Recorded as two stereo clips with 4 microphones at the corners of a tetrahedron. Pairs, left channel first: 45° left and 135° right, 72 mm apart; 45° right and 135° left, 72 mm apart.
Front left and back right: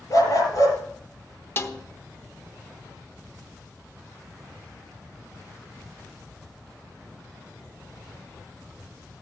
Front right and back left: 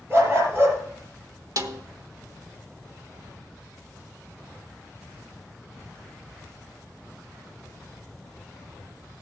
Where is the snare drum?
100° left, 1.0 m.